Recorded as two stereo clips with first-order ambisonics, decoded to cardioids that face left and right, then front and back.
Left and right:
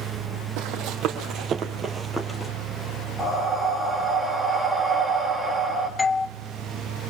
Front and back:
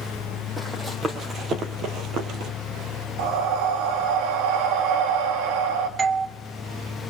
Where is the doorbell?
155° left, 0.5 m.